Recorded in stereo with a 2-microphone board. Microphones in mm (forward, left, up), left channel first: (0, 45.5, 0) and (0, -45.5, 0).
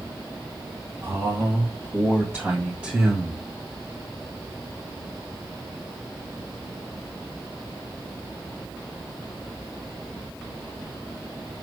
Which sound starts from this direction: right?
A man speaking, at 1.0 s.